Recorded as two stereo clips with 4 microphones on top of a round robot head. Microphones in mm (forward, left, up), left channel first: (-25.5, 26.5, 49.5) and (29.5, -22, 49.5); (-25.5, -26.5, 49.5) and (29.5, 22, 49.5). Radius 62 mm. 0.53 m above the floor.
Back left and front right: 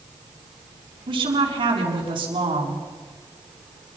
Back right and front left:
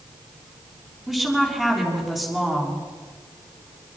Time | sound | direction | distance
1.1 | a woman speaking | 45° right | 6 m